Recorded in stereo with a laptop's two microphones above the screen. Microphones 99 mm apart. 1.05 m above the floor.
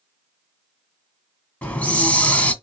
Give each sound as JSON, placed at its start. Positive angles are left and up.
{"t": 1.6, "sound": "a hiss", "side_deg": 15, "distance_m": 1.2}